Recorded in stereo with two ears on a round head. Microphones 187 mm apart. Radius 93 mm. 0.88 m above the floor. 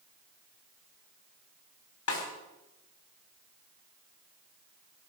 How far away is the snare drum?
About 4.5 m.